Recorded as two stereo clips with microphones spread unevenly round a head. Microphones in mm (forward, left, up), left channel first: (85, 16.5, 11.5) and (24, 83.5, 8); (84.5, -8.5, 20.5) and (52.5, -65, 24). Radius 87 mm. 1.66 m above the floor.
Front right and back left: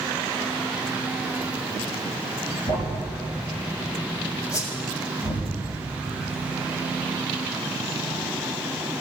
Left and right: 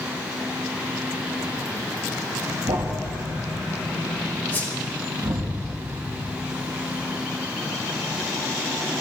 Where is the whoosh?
Straight ahead, 4 m.